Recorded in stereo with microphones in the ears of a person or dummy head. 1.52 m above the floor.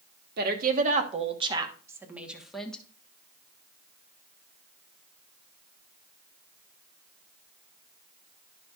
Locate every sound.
0.4 s a woman speaking: 60° right (ahead or behind), 1.5 m; by 2.8 s 5° left (ahead or behind), 1.6 m